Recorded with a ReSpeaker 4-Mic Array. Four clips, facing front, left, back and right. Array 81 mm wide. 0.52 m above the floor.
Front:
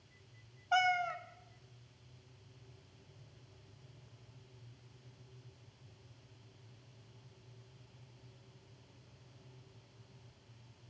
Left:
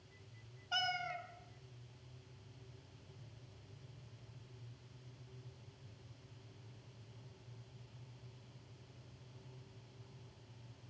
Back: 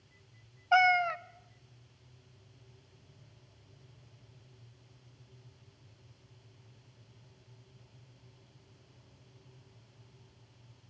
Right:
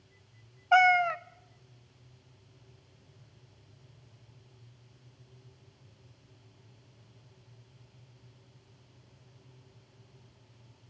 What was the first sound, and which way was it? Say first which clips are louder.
A cat meowing: right 18 dB, back 6 dB; 115° right.